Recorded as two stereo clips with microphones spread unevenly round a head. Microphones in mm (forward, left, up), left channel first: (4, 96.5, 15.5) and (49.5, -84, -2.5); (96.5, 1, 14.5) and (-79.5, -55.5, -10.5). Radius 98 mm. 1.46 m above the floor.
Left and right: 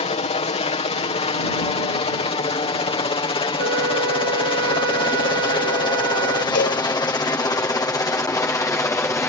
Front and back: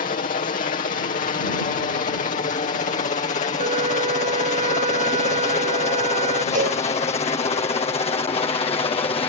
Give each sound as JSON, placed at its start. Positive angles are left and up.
{"t": 0.0, "sound": "a helicopter", "azimuth_deg": 60}
{"t": 3.6, "sound": "a flute", "azimuth_deg": -110}
{"t": 6.5, "sound": "a cowbell", "azimuth_deg": 145}